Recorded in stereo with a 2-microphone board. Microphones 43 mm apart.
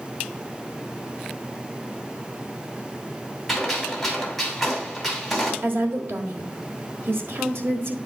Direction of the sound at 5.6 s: 60° right (ahead or behind).